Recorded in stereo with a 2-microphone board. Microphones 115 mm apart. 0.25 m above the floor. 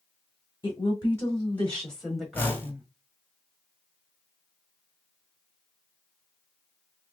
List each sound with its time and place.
0.6 s a woman speaking: 35° left (ahead or behind), 1.7 m; by 2.9 s 15° right (ahead or behind), 1.5 m
2.3 s a whoosh: 15° left (ahead or behind), 1.3 m